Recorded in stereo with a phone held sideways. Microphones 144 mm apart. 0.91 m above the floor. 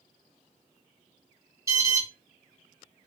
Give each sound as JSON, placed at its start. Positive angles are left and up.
{"t": 1.7, "sound": "an alarm", "side_deg": -20, "distance_m": 1.4}